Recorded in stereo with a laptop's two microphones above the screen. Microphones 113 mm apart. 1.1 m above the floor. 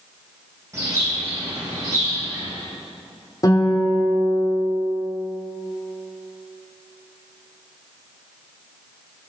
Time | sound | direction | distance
0.7 | a bird | 25° right (ahead or behind) | 4 m
3.4 | a guitar | 35° left (ahead or behind) | 3.5 m